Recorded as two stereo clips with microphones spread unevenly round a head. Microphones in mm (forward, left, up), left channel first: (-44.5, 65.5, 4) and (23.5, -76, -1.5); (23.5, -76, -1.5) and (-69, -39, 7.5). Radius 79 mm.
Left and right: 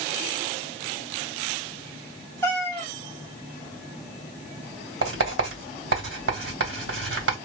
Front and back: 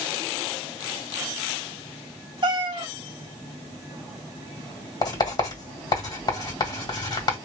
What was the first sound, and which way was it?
A cat meowing, 170° right.